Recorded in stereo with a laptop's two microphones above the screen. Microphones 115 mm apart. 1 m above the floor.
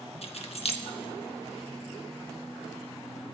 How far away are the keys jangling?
About 0.8 m.